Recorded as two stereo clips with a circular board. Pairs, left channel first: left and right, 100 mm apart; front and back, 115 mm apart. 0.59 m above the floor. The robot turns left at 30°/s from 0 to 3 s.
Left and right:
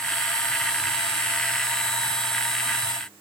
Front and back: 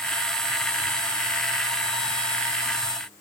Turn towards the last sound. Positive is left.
No sound to turn to.